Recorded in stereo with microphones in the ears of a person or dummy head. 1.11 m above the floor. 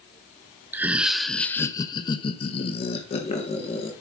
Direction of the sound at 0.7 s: 10° right (ahead or behind).